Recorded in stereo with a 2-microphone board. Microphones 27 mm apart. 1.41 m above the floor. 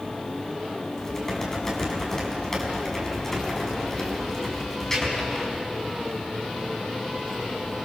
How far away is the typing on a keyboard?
About 5.5 m.